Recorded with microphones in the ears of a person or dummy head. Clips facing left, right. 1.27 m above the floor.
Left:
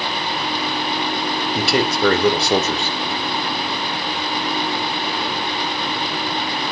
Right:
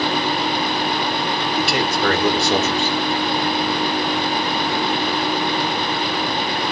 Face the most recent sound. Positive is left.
turn(degrees=85)